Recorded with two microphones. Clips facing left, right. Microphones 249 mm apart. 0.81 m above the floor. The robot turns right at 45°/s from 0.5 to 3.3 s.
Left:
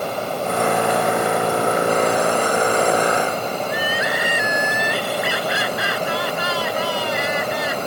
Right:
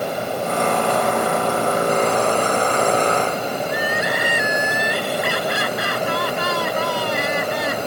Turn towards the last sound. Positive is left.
turn(degrees=-55)  # may be behind; listen again after turning